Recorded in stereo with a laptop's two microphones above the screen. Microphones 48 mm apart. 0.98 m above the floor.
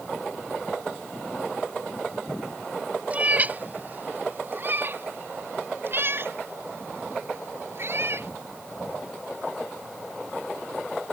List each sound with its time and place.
3.1 s a cat meowing: 30° right (ahead or behind); by 8.3 s 55° right (ahead or behind)